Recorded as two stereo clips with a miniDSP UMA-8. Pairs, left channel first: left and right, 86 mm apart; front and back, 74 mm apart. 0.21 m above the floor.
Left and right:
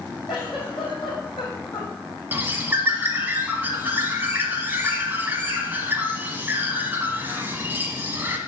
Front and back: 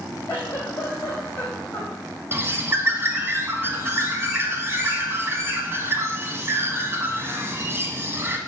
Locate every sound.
0.3 s a giggle: 60° left, 4.5 m
2.3 s a bird: 145° right, 1.1 m